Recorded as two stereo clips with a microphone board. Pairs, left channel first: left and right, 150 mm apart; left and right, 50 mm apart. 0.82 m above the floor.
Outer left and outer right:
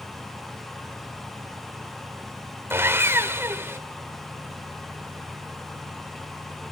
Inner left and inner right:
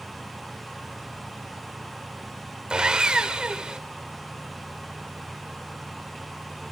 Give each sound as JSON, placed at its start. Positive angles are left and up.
{"t": 2.7, "sound": "sawing", "side_deg": -15, "distance_m": 1.0}